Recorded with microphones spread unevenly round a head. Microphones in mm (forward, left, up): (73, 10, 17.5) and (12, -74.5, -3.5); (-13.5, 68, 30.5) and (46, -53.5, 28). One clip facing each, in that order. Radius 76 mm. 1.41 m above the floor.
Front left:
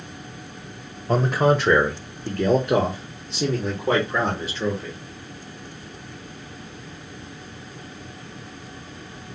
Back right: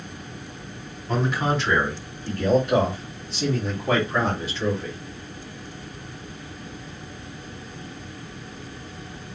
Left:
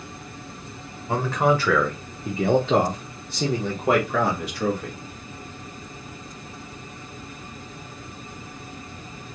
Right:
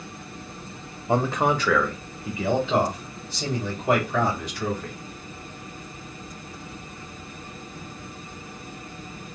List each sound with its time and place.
1.1 s a man speaking: 10° left, 0.7 m; by 5.0 s 90° left, 2 m